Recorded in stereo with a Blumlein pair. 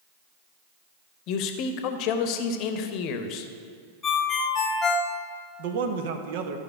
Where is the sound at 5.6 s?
50° right, 0.9 m.